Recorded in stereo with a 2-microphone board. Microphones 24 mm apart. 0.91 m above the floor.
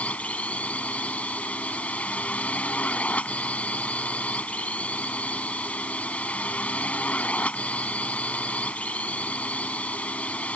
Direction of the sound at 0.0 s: 75° left (ahead or behind).